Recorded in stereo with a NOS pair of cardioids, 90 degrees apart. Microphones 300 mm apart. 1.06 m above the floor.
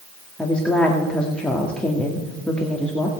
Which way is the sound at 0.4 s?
5° left.